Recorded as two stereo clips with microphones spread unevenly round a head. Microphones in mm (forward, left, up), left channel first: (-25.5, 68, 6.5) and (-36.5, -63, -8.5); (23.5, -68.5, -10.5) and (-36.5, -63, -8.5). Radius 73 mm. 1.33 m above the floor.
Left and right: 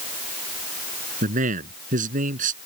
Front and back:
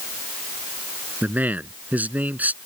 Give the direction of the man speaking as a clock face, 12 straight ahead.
4 o'clock.